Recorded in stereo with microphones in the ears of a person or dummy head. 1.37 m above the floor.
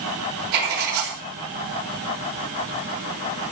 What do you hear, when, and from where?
0.5 s writing: 60° right (ahead or behind), 3 m